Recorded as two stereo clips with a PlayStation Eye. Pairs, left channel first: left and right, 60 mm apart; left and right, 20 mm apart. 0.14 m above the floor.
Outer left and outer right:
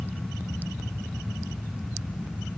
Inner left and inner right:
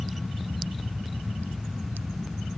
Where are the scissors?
I don't hear scissors.